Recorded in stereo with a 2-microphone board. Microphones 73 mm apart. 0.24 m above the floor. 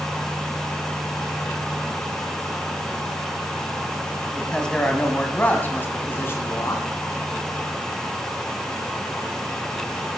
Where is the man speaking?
5° left (ahead or behind), 1.9 m; by 6.8 s 40° left (ahead or behind), 2.5 m.